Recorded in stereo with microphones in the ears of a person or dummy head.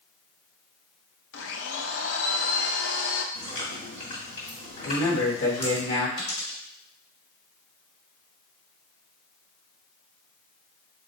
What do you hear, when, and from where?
1.3 s a blender: 65° left (ahead or behind), 0.6 m
3.4 s chewing: 55° left (ahead or behind), 1.8 m
4.8 s a man speaking: 80° left, 1.4 m
6.2 s a dropped coin: 70° left (ahead or behind), 1.6 m